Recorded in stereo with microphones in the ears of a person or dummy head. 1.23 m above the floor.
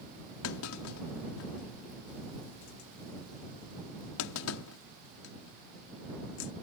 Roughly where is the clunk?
Left.